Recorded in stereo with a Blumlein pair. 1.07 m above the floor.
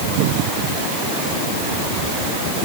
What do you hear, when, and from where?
Only background noise.